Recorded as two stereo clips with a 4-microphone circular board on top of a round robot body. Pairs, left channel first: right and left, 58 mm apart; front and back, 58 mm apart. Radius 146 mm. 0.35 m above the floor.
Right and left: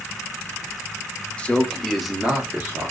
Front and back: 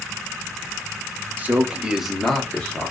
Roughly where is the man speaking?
Behind right.